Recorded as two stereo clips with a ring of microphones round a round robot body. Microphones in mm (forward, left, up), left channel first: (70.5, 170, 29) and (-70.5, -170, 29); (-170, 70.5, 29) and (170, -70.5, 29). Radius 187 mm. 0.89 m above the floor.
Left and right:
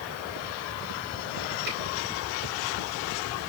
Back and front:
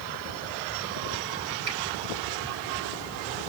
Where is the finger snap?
50° right, 4.5 m.